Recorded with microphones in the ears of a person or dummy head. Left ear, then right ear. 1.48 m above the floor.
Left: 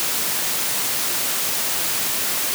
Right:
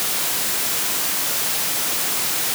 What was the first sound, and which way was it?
Only background noise.